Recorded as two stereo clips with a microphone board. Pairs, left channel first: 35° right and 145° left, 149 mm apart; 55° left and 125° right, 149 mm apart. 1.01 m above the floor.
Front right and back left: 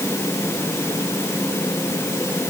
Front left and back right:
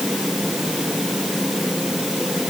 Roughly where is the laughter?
No laughter in this recording.